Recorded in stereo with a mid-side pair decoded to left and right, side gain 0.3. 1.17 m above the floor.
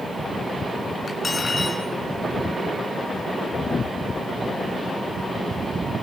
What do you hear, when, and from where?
1.1 s cutlery clinking: 50° left, 7 m